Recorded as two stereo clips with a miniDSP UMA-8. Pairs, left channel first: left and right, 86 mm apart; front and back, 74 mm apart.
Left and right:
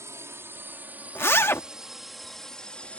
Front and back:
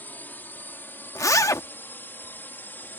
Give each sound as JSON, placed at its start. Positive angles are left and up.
{"t": 0.0, "sound": "a drone", "azimuth_deg": -50}
{"t": 1.1, "sound": "a zipper", "azimuth_deg": 35}